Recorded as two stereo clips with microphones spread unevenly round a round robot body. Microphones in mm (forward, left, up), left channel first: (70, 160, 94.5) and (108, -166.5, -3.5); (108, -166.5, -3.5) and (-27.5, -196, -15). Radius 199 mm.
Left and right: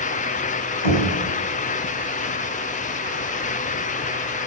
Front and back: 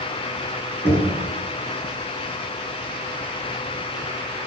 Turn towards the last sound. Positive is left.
turn(degrees=90)